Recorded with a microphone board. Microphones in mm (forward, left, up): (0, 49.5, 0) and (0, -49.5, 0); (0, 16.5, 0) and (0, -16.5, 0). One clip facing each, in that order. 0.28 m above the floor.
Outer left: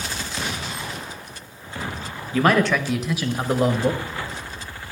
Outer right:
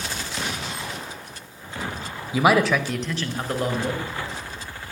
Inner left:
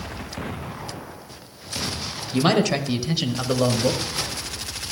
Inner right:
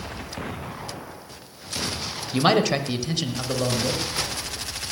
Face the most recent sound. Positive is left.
turn(degrees=30)  # may be behind; listen again after turning